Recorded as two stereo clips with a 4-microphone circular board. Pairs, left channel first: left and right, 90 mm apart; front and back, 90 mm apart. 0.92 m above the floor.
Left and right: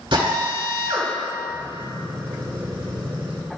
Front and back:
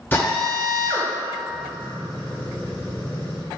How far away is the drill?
About 2.5 m.